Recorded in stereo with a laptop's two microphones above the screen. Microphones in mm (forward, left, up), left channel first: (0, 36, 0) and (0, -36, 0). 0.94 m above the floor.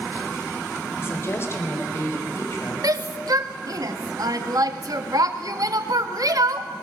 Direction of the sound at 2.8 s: 60° right (ahead or behind).